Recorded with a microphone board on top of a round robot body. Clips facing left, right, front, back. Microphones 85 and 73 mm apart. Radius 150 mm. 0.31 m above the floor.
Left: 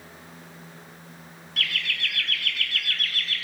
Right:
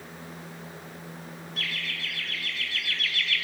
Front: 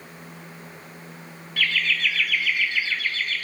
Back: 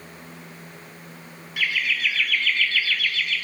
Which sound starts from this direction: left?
Laughter, at 1.6 s.